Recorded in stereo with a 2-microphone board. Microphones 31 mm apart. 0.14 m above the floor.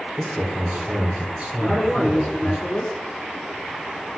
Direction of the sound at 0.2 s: 30° right (ahead or behind).